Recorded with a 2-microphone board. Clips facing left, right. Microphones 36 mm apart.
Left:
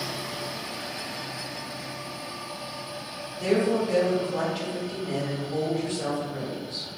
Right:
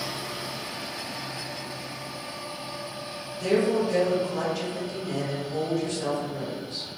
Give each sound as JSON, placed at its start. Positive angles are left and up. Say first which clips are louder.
{"t": 3.4, "sound": "a woman speaking", "louder": "even", "side_deg": 20, "distance_m": 1.0}